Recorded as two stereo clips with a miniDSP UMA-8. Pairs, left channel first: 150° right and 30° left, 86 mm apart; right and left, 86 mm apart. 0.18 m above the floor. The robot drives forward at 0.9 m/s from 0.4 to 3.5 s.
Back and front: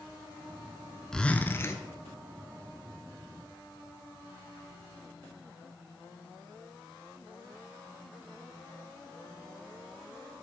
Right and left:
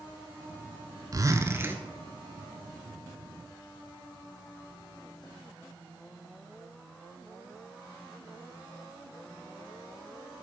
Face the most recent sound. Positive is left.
turn(degrees=170)